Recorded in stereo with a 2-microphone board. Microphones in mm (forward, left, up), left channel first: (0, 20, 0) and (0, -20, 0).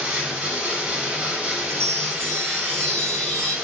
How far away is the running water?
About 1.0 m.